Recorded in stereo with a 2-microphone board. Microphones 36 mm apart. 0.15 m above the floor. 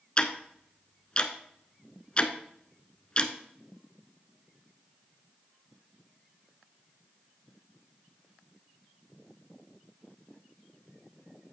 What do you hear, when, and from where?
0.2 s ticking: 25° left (ahead or behind), 0.8 m